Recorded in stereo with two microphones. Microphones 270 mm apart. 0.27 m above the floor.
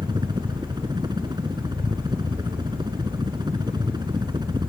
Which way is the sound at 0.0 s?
15° right (ahead or behind).